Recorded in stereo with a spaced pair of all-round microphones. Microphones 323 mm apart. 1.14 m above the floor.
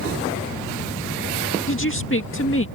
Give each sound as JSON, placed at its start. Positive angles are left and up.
{"t": 1.7, "sound": "a woman speaking", "side_deg": 40}